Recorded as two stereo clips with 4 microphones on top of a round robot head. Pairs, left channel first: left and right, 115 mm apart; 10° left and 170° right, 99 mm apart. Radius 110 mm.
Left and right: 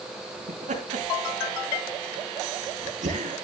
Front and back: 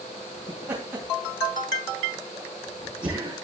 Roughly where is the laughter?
Right.